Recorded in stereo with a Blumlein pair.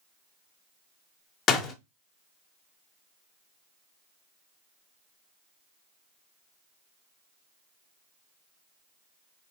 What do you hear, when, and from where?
1.5 s a door slam: 30° left, 0.6 m